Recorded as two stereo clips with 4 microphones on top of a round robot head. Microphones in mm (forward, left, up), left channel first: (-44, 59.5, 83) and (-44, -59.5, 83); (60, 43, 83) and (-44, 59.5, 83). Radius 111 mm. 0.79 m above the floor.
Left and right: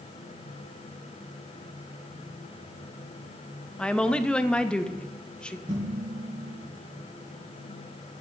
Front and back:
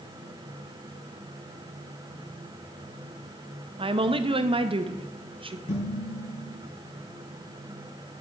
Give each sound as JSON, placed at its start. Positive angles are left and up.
{"t": 3.8, "sound": "a woman speaking", "azimuth_deg": 170, "distance_m": 0.8}
{"t": 5.7, "sound": "dishes clattering", "azimuth_deg": -25, "distance_m": 4.0}